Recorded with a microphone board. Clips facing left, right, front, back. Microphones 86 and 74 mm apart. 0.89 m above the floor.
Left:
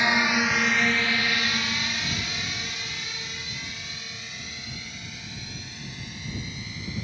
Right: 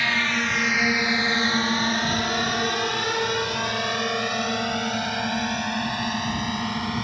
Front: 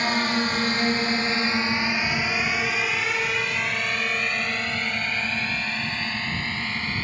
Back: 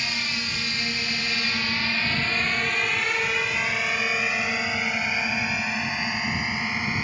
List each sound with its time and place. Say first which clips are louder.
0.0 s a drone: left 2 dB, front 8 dB; 25° left; by 7.0 s 105° right